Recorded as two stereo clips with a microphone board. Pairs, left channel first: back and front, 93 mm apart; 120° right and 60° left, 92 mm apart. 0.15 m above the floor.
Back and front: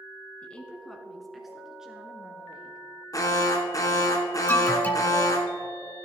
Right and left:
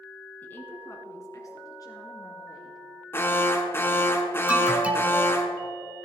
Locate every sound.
0.4 s a woman speaking: 135° right, 1.3 m; by 2.9 s 75° right, 3 m
3.1 s an alarm: 170° right, 1.2 m
4.5 s an alarm: 125° left, 1.3 m